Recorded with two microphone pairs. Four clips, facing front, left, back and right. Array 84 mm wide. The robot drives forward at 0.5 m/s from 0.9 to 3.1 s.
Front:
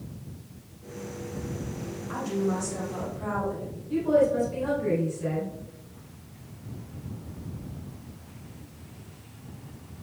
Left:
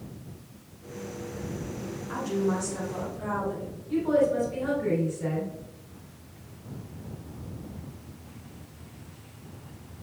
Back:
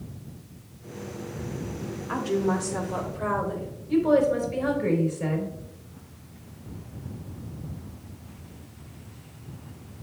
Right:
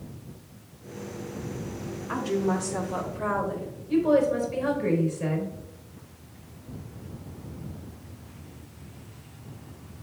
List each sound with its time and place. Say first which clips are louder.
2.1 s a woman speaking: right 2 dB, back 3 dB; 160° right, 1.4 m; by 3.7 s 165° right, 1.9 m
3.9 s a woman speaking: right 2 dB, back 2 dB; 170° right, 3 m